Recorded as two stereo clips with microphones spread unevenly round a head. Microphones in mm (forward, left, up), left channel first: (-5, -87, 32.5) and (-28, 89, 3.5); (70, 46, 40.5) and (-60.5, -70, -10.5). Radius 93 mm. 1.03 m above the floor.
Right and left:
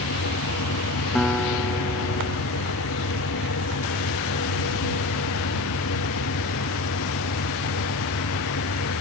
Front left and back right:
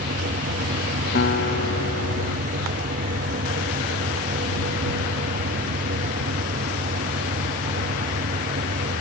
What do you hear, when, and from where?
0.0 s a fan: 90° right
1.1 s a guitar: 5° left